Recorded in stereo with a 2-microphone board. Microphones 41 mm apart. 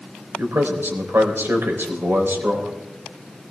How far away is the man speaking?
About 3.5 m.